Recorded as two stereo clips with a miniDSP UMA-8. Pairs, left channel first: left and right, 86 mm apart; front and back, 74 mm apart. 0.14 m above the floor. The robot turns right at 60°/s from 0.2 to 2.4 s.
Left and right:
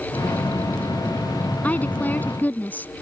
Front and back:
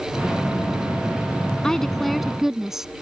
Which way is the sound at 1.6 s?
60° left.